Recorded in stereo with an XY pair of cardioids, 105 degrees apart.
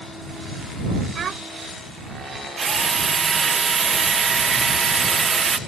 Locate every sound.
1.1 s a child speaking: 50° right
2.6 s a drill: 35° right